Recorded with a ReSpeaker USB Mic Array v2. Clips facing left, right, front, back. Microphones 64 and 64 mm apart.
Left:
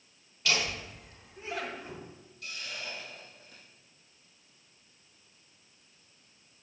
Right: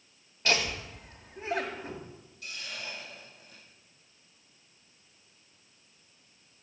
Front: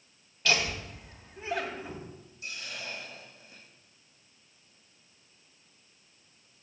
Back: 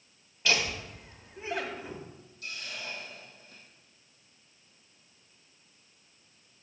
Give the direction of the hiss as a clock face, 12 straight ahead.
6 o'clock.